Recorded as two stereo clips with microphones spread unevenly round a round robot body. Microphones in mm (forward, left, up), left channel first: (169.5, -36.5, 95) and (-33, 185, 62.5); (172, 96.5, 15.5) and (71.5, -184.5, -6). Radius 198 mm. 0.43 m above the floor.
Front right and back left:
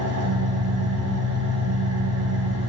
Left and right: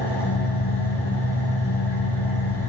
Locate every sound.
0.0 s an engine running: 90° left, 3.5 m